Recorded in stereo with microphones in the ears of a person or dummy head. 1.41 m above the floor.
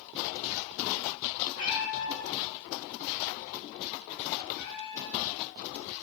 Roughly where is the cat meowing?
Left.